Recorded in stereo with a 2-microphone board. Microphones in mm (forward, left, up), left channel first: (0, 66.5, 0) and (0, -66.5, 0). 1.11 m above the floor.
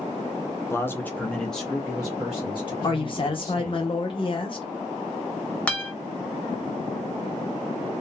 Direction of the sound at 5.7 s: 10° left (ahead or behind).